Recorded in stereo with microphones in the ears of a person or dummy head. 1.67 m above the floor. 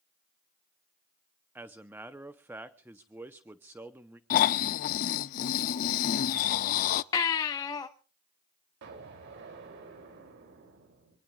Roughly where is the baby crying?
Centre.